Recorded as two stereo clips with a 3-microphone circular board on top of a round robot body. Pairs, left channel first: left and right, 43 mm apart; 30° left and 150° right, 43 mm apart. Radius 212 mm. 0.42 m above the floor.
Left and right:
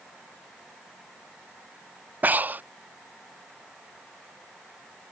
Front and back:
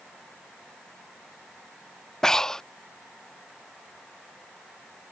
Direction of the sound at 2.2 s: 45° right.